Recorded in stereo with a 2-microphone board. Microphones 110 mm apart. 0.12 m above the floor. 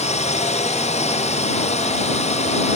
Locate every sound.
0.0 s a drone: 85° left